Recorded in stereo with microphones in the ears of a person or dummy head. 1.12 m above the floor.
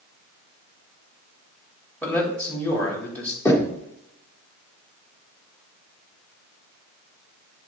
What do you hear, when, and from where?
2.0 s a man speaking: 10° left (ahead or behind), 2.5 m
3.5 s knocking: 20° left (ahead or behind), 2 m